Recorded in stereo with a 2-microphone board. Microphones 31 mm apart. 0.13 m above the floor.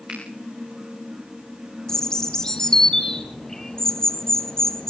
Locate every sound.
0.1 s a finger snap: 25° right (ahead or behind), 8.5 m
1.9 s a bird: 20° left (ahead or behind), 1.2 m